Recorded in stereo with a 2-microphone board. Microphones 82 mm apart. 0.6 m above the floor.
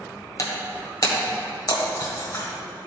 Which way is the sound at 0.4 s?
45° left (ahead or behind).